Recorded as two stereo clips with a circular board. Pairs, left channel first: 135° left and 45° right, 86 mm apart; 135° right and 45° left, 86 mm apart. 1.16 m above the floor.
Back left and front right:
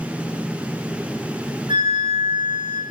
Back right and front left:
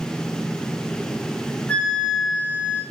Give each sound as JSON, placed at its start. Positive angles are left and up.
{"t": 1.7, "sound": "a flute", "azimuth_deg": -60, "distance_m": 4.0}